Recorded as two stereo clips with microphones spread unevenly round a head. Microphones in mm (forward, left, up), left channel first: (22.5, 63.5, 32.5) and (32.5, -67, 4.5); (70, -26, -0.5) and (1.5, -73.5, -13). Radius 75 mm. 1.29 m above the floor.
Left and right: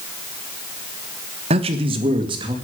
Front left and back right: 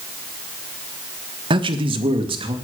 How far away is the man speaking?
About 1.5 m.